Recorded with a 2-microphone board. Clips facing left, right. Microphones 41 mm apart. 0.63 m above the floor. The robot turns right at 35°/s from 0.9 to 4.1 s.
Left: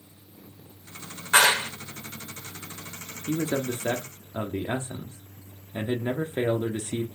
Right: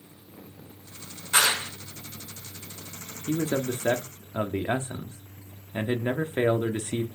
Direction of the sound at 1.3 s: 50° left (ahead or behind).